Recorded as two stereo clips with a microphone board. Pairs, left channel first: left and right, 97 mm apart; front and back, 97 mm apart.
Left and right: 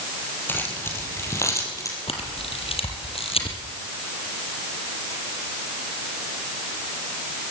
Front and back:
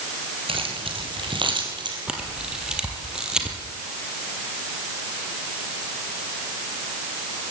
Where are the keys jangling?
160° left, 4.5 m; by 2.0 s 145° left, 4.5 m.